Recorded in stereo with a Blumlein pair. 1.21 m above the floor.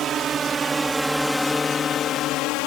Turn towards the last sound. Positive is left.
turn(degrees=45)